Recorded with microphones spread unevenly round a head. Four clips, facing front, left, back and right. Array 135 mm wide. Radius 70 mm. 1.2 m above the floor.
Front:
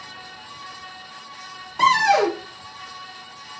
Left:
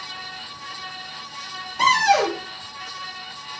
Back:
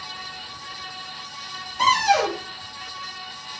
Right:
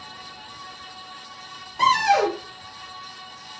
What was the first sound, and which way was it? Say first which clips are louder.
A cupboard door: left 1 dB, front 2 dB; 5° left.